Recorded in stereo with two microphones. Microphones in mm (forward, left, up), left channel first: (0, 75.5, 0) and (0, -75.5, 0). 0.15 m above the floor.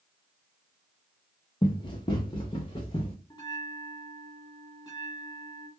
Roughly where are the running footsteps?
Left.